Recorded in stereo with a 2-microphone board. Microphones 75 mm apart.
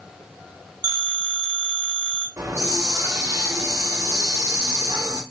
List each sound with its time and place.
0.8 s a phone ringing: 60° right (ahead or behind), 0.9 m
2.4 s a hiss: 50° right (ahead or behind), 1.6 m